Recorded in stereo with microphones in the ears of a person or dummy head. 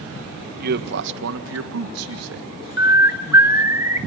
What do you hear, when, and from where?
0.6 s a man speaking: 50° right (ahead or behind), 1.4 m; by 2.5 s 75° right (ahead or behind), 1.9 m
2.8 s a bird: 15° right (ahead or behind), 1.5 m